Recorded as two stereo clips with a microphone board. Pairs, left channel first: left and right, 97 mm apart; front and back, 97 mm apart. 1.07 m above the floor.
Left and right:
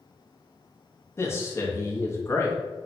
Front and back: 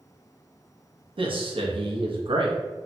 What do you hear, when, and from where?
1.2 s a man speaking: 150° left, 0.7 m